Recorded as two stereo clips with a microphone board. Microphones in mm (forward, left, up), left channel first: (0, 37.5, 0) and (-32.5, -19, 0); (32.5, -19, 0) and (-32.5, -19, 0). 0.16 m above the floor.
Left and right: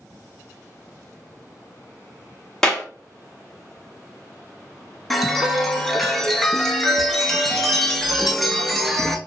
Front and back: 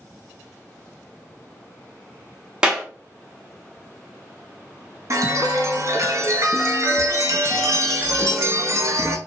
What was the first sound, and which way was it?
A clap, 125° left.